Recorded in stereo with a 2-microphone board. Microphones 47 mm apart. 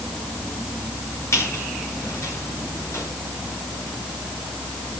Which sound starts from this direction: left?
A squeak, at 1.3 s.